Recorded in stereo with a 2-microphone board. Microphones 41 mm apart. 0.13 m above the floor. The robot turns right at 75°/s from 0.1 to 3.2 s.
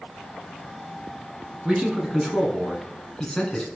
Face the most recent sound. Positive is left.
turn(degrees=15)  # may be behind; listen again after turning